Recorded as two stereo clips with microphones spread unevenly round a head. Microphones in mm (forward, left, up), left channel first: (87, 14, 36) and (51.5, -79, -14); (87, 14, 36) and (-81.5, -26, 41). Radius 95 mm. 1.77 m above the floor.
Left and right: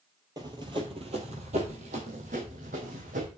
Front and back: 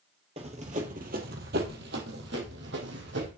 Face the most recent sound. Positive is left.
turn(degrees=-150)